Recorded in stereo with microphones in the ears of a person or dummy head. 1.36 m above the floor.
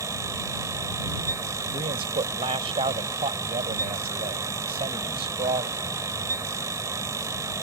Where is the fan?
20° right (ahead or behind).